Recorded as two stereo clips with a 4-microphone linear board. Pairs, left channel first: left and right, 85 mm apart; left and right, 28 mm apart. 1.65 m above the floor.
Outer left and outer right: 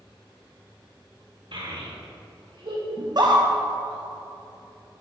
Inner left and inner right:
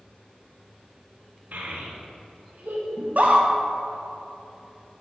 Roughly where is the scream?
Right.